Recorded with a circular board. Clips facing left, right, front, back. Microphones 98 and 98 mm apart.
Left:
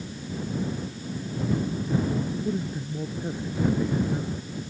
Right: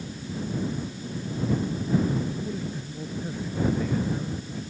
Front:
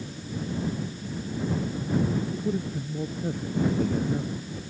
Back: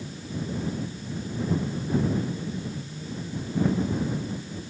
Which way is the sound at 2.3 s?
20° left.